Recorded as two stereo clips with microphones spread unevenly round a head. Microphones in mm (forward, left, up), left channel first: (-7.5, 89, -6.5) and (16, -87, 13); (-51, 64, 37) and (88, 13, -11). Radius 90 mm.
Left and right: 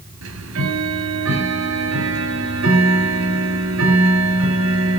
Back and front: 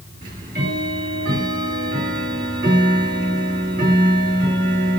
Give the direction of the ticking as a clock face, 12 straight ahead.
3 o'clock.